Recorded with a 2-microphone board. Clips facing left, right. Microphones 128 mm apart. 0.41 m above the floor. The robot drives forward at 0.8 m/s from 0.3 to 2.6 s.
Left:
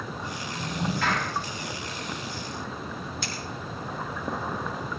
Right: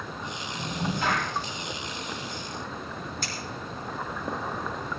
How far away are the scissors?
About 4 m.